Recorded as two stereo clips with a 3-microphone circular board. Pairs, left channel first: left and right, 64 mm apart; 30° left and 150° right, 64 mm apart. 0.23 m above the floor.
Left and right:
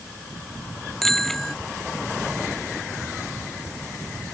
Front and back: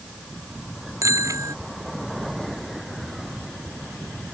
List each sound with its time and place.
1.0 s a bicycle bell: 175° left